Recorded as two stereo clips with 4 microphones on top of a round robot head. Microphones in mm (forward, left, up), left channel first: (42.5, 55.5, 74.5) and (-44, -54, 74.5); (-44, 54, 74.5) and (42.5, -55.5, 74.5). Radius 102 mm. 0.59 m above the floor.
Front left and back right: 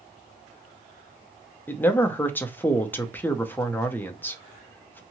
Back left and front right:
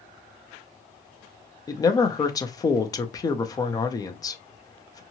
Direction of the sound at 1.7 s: 110° left.